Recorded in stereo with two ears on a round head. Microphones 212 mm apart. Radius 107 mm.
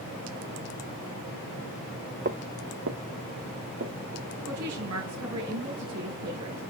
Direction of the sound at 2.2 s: 40° right (ahead or behind).